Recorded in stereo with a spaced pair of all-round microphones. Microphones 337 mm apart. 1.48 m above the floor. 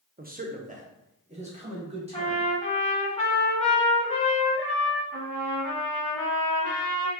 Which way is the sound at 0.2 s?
25° right (ahead or behind).